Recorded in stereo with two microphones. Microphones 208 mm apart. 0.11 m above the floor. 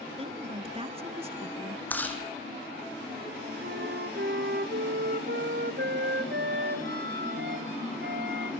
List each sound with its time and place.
0.2 s a woman speaking: 30° right (ahead or behind), 1.7 m
1.9 s chewing: 10° left (ahead or behind), 4 m
3.6 s a flute: 60° right (ahead or behind), 2.5 m